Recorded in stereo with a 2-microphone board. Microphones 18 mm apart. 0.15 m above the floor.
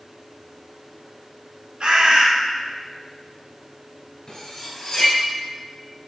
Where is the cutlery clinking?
40° left (ahead or behind), 1.5 m.